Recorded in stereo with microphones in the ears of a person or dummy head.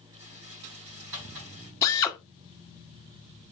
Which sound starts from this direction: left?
A drill, at 1.8 s.